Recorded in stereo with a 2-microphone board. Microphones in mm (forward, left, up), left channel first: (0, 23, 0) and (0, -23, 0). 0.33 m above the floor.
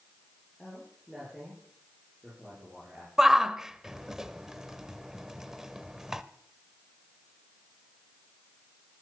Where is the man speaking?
10° right (ahead or behind), 8.5 m.